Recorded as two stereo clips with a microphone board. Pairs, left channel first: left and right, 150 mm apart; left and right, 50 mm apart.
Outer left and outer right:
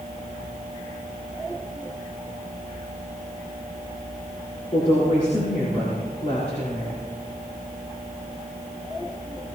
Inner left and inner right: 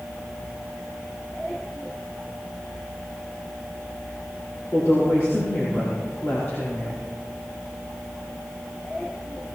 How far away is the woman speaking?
About 5 m.